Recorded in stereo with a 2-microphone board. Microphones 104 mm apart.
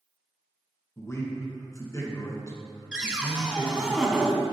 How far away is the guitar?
I don't hear a guitar.